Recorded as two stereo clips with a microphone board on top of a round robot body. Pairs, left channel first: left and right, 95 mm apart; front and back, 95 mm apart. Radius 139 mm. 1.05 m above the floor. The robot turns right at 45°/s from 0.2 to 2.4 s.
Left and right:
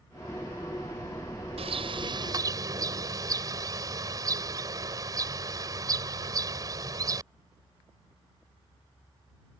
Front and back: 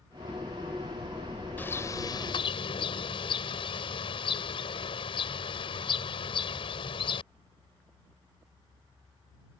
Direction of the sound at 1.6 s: 75° right.